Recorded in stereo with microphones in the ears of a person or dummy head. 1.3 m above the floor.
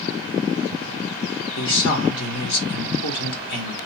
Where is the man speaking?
65° left (ahead or behind), 1.2 m.